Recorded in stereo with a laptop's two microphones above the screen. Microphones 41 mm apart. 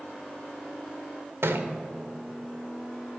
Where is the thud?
80° right, 1.6 m.